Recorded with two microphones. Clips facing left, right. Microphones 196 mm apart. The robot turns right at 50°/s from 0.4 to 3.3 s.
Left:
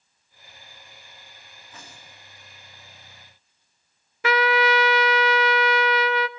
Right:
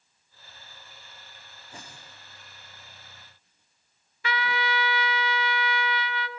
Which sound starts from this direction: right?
Tape being pulled, at 1.7 s.